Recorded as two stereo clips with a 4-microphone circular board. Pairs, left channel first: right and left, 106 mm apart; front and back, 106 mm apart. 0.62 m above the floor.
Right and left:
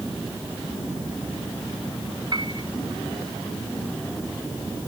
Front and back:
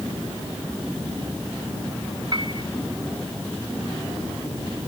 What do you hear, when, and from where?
2.3 s a piano: 135° left